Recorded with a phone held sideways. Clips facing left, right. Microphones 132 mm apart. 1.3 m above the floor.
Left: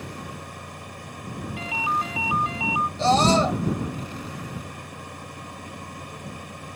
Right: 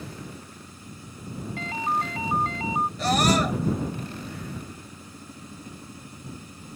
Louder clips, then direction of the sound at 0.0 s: Left 3 dB; 75° left (ahead or behind).